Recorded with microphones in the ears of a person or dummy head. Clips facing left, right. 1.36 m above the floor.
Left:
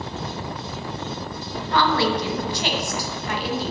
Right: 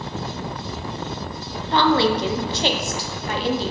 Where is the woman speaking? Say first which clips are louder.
Right 3 dB; 25° right (ahead or behind), 0.5 m.